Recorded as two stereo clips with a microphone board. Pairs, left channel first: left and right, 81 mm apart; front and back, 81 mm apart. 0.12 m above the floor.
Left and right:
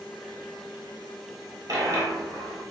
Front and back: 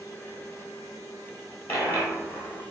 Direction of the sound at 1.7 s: 65° right.